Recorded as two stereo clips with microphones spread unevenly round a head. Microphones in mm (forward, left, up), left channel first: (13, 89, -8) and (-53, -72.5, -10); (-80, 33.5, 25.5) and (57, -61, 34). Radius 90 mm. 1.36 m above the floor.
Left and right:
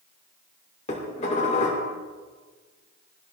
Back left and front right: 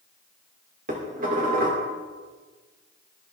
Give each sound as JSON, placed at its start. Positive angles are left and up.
{"t": 0.9, "sound": "dishes clattering", "azimuth_deg": 10, "distance_m": 2.5}